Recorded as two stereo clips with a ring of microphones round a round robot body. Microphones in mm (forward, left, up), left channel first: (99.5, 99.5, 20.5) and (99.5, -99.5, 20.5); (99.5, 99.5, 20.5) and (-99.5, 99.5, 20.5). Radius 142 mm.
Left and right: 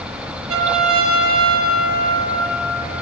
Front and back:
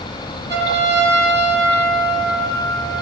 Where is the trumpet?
100° right, 8 m.